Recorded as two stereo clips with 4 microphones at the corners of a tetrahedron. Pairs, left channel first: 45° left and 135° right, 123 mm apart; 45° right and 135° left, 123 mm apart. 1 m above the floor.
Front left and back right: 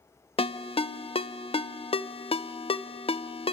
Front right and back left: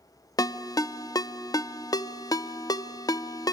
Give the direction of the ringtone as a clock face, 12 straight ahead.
12 o'clock.